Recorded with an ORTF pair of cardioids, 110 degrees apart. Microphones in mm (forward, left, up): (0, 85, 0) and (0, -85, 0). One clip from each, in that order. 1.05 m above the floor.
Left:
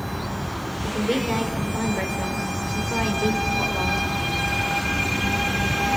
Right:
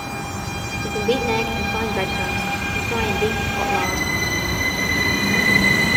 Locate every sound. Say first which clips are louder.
0.8 s a woman speaking: right 4 dB; 35° right, 2.5 m